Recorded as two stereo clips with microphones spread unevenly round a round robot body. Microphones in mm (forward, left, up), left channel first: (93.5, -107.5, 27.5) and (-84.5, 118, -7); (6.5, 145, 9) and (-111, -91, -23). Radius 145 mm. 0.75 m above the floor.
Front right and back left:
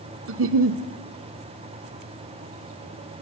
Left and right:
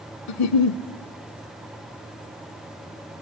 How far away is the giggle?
About 0.9 m.